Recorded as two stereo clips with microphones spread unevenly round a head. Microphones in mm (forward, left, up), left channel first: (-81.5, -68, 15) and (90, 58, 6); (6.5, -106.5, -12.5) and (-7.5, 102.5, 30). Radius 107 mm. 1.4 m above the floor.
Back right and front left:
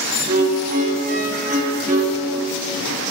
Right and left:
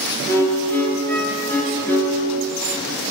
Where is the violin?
5° left, 0.8 m.